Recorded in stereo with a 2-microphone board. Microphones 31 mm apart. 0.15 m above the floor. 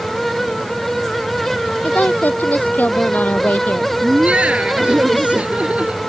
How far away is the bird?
I don't hear a bird.